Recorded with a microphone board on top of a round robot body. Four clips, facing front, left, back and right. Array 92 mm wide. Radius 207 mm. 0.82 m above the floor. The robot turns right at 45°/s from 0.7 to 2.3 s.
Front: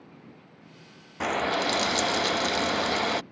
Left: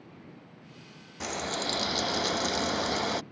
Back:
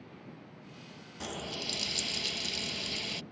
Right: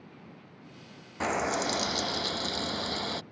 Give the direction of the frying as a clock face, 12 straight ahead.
1 o'clock.